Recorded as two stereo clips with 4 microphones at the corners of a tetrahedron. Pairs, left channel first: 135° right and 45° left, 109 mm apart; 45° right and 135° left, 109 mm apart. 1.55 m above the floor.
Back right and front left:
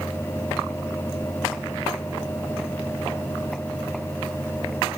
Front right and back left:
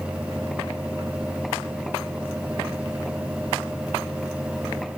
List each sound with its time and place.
Only background noise.